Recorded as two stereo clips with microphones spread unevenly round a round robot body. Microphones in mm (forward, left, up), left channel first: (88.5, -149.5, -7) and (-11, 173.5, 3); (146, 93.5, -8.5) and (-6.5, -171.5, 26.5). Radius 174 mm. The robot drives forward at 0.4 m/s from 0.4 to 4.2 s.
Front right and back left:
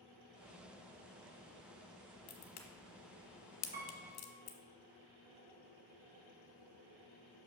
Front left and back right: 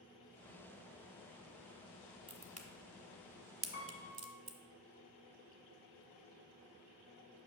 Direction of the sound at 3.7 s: 170° left.